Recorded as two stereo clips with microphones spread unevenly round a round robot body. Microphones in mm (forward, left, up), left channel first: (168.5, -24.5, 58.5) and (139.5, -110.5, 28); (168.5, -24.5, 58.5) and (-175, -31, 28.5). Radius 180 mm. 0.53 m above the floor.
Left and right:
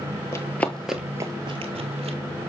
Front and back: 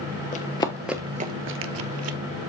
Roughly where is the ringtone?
I don't hear a ringtone.